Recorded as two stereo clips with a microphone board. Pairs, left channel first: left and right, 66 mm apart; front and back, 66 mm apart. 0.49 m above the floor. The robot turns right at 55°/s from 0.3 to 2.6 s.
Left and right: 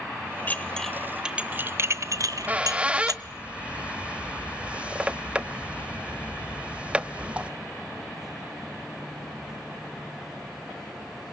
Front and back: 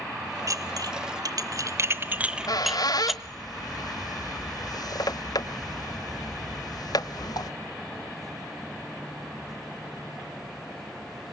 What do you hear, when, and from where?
0.5 s dishes clattering: 150° left, 0.9 m; by 3.1 s 90° right, 0.9 m
2.1 s a squeak: 45° right, 1.0 m; by 7.5 s 20° right, 1.0 m